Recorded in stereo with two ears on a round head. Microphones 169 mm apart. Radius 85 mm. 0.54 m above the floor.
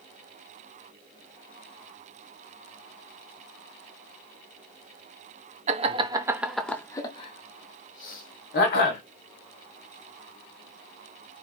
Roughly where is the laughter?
Right.